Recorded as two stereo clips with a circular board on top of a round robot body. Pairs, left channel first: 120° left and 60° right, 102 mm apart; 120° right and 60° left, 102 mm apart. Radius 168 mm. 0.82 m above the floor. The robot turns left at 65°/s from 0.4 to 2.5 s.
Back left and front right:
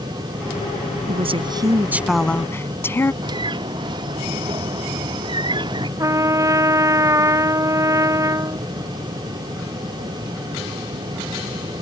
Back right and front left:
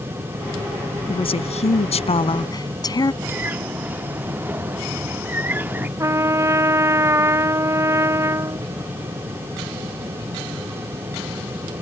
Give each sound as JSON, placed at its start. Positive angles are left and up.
{"t": 1.1, "sound": "a woman speaking", "azimuth_deg": -80}
{"t": 3.2, "sound": "a bird", "azimuth_deg": -15}
{"t": 6.0, "sound": "a trumpet", "azimuth_deg": 0}